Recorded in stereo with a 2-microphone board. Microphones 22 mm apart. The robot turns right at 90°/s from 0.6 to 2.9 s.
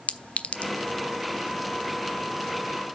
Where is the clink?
80° left, 0.8 m; by 0.7 s 75° left (ahead or behind), 0.8 m.